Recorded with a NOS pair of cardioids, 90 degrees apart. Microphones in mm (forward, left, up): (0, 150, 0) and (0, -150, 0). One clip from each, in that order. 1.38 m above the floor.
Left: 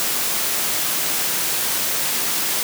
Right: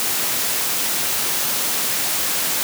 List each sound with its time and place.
Only background noise.